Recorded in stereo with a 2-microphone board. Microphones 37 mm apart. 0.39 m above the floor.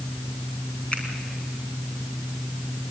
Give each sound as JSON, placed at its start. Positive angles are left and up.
{"t": 0.9, "sound": "a finger snap", "side_deg": 30, "distance_m": 4.0}